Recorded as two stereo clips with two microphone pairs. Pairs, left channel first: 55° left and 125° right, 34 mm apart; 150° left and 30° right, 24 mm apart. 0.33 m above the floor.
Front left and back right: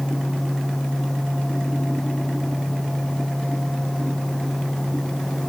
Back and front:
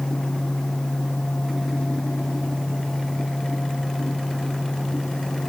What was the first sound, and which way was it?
Only background noise.